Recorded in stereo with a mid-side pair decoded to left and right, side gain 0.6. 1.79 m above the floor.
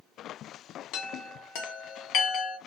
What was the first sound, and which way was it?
A chime, 70° left.